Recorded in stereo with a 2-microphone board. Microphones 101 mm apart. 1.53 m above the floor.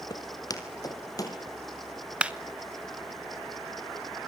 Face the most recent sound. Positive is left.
turn(degrees=-10)  # may be behind; listen again after turning